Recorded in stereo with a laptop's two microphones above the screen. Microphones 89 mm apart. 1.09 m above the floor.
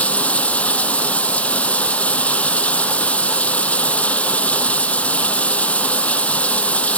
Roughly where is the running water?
Centre.